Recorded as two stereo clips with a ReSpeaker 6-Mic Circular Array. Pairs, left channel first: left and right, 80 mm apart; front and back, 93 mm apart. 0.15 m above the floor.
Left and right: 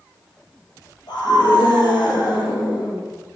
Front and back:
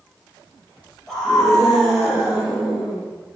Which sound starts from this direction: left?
A scream, at 1.1 s.